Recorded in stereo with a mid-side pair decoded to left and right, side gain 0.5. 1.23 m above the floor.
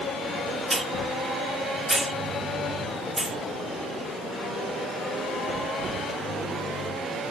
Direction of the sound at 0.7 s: 20° right.